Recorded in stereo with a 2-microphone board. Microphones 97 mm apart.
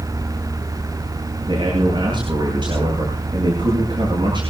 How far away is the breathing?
No breathing in this recording.